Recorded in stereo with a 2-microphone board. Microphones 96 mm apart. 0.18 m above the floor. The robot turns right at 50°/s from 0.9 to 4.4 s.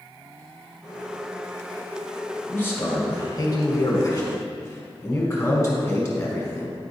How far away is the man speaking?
About 1.7 m.